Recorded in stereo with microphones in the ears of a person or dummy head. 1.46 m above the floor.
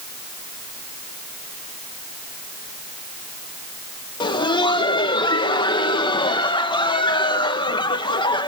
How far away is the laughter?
About 1.9 m.